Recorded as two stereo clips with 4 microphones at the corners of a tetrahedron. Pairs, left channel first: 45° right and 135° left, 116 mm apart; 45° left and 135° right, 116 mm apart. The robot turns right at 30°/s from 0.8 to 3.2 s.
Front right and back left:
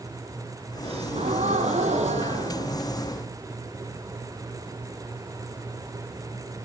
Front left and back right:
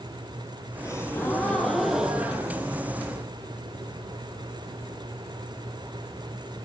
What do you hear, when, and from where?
0.8 s a gasp: 105° left, 3.5 m; by 3.2 s 175° left, 3.5 m